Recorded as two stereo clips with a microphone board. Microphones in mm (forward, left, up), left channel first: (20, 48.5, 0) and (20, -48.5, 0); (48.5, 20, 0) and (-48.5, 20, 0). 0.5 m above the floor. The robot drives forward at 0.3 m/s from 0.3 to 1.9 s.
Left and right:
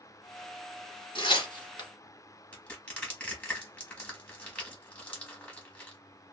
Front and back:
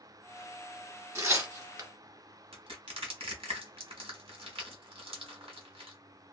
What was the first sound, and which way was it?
Tearing paper, 120° left.